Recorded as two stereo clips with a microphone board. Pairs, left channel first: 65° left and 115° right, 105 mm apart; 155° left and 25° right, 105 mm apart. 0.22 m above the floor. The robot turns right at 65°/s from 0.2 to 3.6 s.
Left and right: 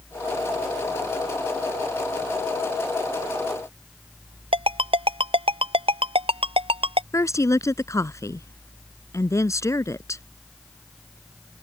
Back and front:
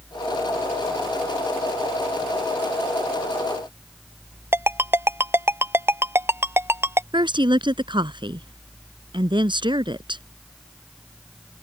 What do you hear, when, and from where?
4.5 s a ringtone: 90° right
7.1 s a woman speaking: 10° left